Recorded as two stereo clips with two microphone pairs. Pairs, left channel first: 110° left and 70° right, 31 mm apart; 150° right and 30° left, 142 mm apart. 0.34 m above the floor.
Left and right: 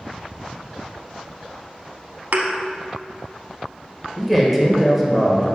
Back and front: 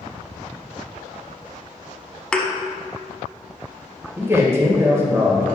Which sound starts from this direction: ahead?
A man speaking, at 4.2 s.